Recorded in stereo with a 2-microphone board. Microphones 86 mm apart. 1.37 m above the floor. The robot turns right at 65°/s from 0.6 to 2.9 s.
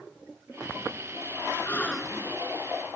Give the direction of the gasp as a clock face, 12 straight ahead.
7 o'clock.